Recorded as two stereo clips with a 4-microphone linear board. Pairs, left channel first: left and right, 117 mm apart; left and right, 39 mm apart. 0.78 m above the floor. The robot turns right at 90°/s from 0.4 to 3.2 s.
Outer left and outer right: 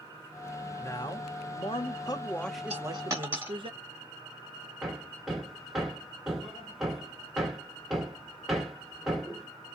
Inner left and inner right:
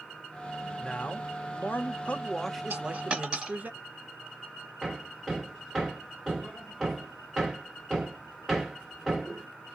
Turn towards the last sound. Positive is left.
turn(degrees=0)  # may be behind; listen again after turning